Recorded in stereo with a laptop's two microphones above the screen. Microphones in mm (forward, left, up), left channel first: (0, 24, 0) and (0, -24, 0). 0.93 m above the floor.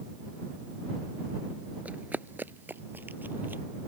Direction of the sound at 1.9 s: 30° right (ahead or behind).